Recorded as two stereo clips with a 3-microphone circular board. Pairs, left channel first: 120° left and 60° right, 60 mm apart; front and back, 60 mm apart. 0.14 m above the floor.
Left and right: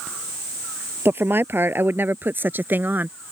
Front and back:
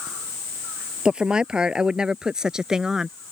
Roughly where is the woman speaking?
Right.